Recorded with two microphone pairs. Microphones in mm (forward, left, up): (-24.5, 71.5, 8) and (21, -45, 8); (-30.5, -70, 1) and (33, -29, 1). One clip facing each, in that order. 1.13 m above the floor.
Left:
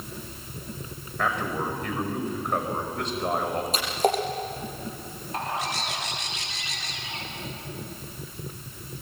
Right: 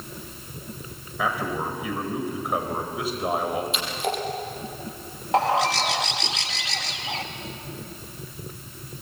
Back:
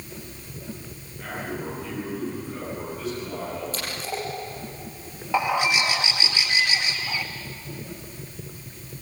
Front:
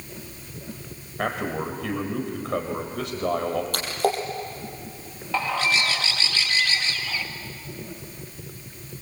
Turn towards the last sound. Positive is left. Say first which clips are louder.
# right 10 dB, back 2 dB
turn(degrees=-75)